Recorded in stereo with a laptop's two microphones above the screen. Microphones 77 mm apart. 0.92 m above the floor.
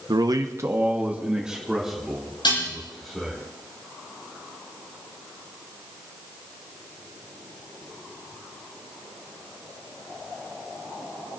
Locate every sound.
0.1 s a man speaking: 65° right (ahead or behind), 0.9 m; by 3.4 s 5° left (ahead or behind), 4 m
2.4 s dishes clattering: 75° left (ahead or behind), 7.5 m